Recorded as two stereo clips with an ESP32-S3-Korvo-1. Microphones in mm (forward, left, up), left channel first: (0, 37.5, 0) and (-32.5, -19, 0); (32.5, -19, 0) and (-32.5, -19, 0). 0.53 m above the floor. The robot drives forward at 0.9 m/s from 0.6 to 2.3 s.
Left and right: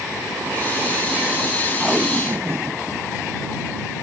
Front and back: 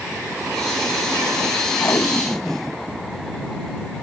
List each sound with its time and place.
1.8 s tape being pulled: 35° right; by 2.8 s 80° right